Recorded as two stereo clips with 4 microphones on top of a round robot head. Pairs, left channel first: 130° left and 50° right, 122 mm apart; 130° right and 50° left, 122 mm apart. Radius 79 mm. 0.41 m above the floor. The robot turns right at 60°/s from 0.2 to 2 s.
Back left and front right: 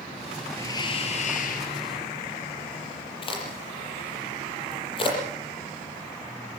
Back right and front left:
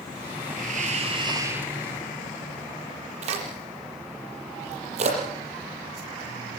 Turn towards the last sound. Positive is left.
turn(degrees=80)